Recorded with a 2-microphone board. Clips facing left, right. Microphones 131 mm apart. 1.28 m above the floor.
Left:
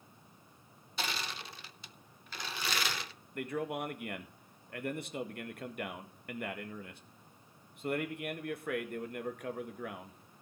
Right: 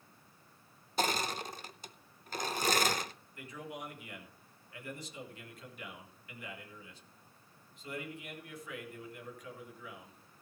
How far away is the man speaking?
About 1.6 m.